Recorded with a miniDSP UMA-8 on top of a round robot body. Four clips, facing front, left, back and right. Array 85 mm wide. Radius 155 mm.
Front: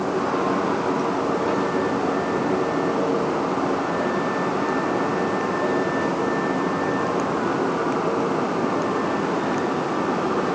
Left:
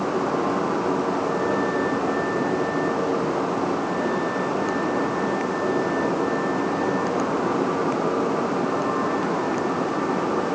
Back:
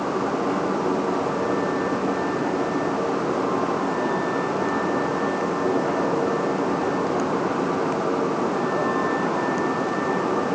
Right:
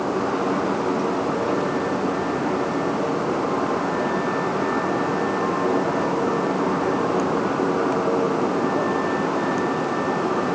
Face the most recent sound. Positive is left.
No sound to turn to.